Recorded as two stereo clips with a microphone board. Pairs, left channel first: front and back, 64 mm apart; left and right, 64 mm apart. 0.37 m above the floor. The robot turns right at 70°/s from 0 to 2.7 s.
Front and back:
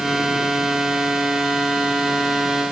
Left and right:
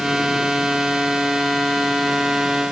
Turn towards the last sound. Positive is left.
No sound to turn to.